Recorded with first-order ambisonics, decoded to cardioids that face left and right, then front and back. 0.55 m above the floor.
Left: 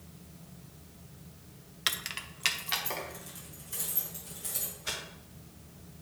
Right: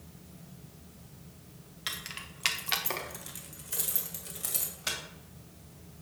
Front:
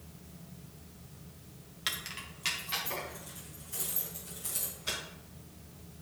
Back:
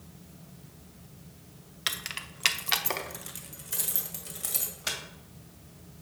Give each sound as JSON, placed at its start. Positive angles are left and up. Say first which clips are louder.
{"t": 1.9, "sound": "keys jangling", "louder": "left 5 dB, back 4 dB", "azimuth_deg": 125, "distance_m": 0.6}